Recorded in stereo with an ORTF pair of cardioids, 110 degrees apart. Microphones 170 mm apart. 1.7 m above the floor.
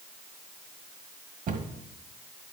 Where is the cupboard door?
50° right, 1.6 m.